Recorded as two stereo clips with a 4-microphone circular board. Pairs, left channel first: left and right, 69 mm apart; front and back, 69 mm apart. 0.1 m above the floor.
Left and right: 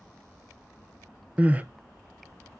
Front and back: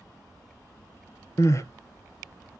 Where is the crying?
25° right, 0.7 m.